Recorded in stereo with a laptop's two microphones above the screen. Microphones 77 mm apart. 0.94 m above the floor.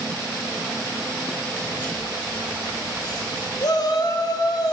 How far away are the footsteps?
About 2.5 m.